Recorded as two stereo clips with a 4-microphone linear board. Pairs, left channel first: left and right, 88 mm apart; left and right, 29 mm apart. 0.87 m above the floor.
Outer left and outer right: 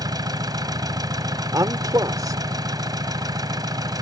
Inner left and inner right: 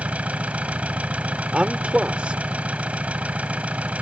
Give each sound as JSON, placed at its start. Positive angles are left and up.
{"t": 0.0, "sound": "an engine running", "side_deg": -45}
{"t": 1.5, "sound": "a man speaking", "side_deg": -40}